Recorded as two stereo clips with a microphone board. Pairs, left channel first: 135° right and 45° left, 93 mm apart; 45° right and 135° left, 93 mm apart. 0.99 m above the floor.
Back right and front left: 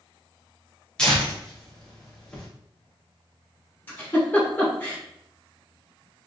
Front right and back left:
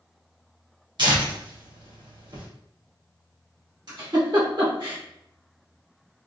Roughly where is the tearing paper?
Behind left.